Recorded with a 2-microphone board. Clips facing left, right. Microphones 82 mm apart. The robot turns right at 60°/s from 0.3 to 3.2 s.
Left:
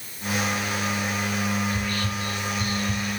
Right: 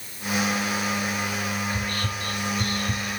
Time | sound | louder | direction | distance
1.7 | whispering | left 1 dB | 30° right (ahead or behind) | 2.5 m